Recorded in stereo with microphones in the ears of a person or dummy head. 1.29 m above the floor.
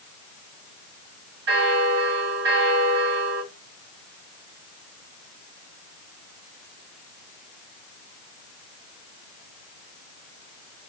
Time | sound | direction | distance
1.5 | a bell | 60° right (ahead or behind) | 1.4 m